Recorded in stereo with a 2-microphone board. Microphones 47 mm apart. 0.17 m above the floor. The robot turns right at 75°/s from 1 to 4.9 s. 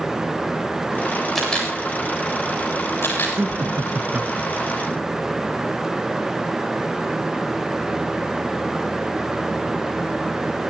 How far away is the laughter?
About 2.5 m.